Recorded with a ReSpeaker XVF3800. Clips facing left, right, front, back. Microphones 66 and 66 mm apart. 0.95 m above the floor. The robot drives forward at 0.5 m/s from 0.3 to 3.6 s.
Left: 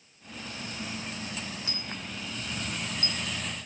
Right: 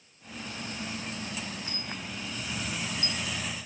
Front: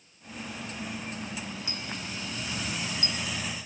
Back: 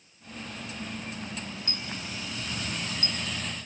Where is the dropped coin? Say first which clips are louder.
Even, even; 80° left, 0.8 m; by 3.2 s 130° left, 1.0 m.